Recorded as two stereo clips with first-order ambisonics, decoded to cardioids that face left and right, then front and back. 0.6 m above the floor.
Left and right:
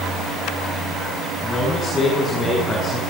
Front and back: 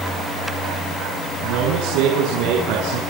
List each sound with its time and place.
1.4 s a man speaking: 170° left, 6 m